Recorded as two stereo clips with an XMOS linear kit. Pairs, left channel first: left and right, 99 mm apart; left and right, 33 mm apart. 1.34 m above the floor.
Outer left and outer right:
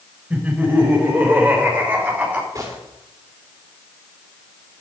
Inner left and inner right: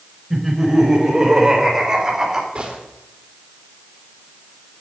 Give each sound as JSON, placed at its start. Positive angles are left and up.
{"t": 0.3, "sound": "laughter", "side_deg": -15, "distance_m": 7.0}
{"t": 2.5, "sound": "a gunshot", "side_deg": -30, "distance_m": 3.5}